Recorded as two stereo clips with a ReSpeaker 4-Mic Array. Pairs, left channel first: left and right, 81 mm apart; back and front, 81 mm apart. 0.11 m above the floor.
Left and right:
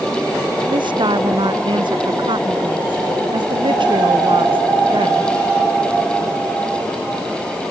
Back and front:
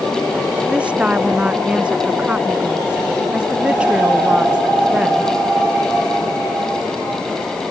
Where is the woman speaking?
75° right.